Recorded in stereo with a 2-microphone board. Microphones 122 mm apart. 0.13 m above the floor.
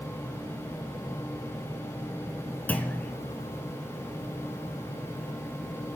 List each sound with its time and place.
2.7 s a clunk: 15° left (ahead or behind), 0.6 m